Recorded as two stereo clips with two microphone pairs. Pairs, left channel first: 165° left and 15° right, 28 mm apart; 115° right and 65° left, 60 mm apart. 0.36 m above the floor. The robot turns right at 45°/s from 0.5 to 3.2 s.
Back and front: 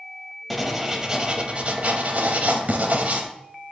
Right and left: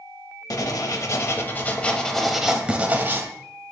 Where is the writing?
110° right, 0.7 m; by 3.3 s 15° left, 0.7 m.